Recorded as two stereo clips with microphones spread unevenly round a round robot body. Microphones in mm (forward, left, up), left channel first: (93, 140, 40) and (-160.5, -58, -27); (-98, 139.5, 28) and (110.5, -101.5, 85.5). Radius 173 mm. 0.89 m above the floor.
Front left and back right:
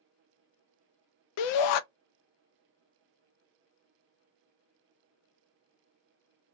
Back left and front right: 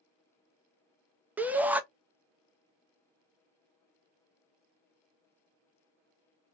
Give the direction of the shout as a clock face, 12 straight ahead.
11 o'clock.